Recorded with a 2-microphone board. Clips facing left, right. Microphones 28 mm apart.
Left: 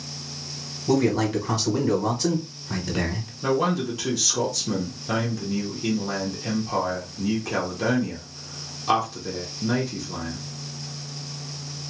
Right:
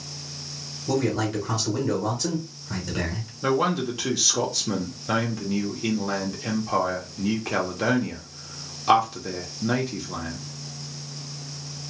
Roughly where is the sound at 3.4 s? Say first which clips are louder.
Even; centre.